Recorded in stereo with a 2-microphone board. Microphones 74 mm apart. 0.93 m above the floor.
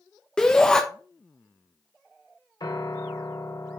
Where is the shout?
10° left (ahead or behind), 0.7 m.